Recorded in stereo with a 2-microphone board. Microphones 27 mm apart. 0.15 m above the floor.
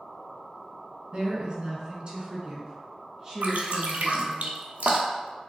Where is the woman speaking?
40° right (ahead or behind), 1.5 m; by 4.4 s 15° right (ahead or behind), 1.4 m.